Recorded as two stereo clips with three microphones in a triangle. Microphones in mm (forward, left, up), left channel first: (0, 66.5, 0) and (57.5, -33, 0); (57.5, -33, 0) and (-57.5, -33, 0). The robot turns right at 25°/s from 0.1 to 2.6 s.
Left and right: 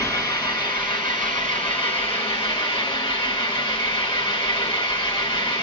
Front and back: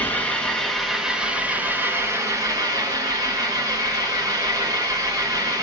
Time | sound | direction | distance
0.0 | an engine running | 70° left | 2 m